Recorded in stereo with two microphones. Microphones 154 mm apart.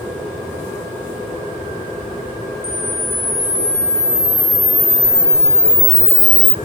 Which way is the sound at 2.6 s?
45° left (ahead or behind).